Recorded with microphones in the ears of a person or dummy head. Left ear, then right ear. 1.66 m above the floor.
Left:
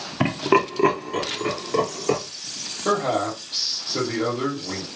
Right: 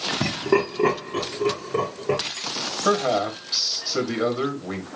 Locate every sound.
0.2 s laughter: 55° left (ahead or behind), 0.9 m; by 2.2 s 65° left (ahead or behind), 3 m
2.9 s a man speaking: 30° right (ahead or behind), 1.0 m